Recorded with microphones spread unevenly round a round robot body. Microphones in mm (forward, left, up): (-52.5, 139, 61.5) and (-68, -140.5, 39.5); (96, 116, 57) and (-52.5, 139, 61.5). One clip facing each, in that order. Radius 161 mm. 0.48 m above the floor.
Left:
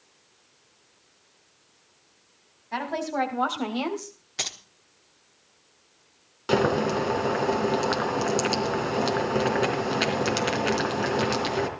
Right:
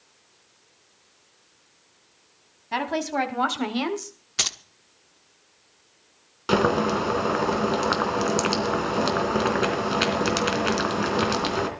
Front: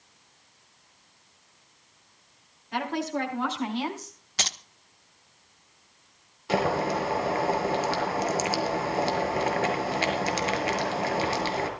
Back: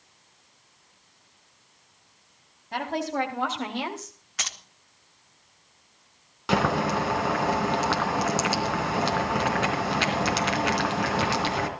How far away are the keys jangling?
About 0.9 m.